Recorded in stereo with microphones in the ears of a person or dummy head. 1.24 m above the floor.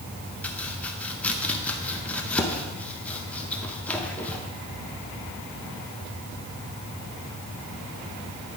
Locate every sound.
0.4 s chopping: 10° left (ahead or behind), 0.7 m